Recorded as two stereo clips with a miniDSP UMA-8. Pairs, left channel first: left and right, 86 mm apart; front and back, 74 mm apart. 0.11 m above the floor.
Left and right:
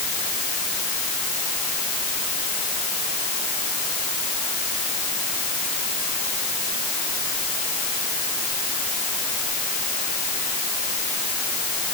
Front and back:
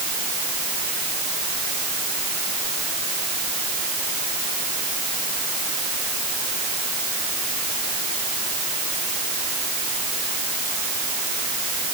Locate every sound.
Only background noise.